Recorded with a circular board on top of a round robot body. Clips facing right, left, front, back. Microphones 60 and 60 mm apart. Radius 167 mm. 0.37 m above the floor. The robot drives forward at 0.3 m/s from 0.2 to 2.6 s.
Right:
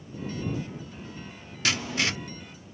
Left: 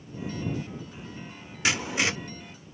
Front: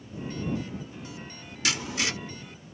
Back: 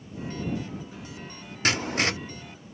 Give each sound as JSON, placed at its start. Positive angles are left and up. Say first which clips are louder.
{"t": 1.6, "sound": "writing", "louder": "left 1 dB, back 4 dB", "azimuth_deg": 155, "distance_m": 1.0}